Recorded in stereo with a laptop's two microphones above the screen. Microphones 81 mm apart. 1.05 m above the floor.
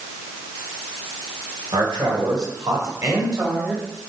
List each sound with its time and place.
1.7 s a man speaking: 70° right (ahead or behind), 3.5 m; by 3.9 s 30° right (ahead or behind), 3.5 m